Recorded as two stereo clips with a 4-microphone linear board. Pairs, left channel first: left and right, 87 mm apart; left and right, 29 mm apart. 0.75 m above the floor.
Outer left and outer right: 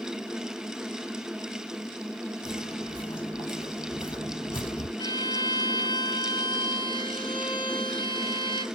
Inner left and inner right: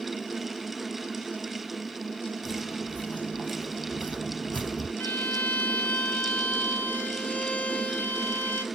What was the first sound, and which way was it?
Footsteps, 75° left (ahead or behind).